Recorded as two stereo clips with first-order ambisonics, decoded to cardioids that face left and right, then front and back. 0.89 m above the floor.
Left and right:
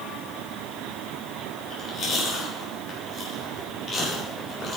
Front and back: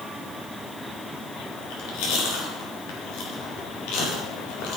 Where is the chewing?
25° left, 3 m.